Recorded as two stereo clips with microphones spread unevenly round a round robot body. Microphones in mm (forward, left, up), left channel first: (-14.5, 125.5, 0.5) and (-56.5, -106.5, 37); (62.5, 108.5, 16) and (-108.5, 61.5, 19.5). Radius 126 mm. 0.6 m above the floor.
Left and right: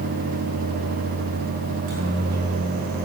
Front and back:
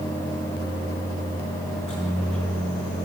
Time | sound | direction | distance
1.7 | a microwave | 75° right | 7 m